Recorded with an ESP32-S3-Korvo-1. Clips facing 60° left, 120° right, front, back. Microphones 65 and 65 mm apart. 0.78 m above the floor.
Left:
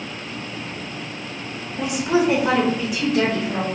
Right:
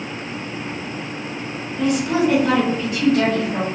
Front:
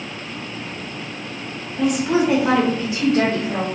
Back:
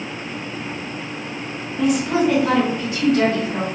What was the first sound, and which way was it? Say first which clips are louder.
A woman speaking: right 1 dB, even; 95° left.